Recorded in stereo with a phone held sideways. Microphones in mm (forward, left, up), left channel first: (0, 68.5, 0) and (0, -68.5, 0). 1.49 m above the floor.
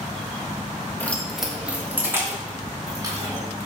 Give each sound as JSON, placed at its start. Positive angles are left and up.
{"t": 1.0, "sound": "keys jangling", "side_deg": 15, "distance_m": 1.6}